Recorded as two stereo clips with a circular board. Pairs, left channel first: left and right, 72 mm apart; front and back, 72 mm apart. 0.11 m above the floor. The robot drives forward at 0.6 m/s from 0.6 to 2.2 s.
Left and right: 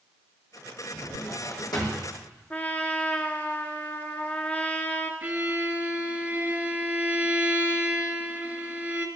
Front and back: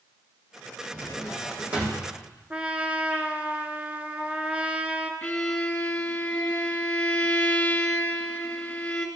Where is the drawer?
100° left, 3.5 m; by 2.1 s 115° left, 3.5 m.